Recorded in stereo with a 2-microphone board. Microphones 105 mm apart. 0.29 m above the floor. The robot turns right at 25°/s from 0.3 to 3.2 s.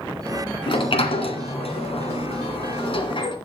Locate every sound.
0.7 s a sliding door: 55° left (ahead or behind), 1.7 m; by 3.4 s 50° left (ahead or behind), 1.7 m